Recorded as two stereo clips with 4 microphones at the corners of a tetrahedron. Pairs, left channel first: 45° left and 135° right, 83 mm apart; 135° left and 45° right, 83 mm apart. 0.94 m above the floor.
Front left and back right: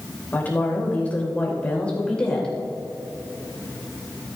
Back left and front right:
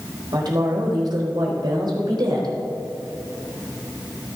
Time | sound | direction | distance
0.3 | a woman speaking | 20° right | 4.5 m